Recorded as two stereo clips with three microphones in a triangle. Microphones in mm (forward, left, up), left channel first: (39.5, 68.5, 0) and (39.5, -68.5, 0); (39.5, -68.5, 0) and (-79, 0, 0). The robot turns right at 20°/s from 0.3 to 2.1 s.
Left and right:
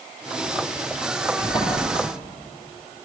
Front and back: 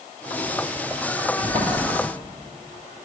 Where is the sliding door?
135° left, 2.5 m; by 1.8 s 140° left, 2.5 m.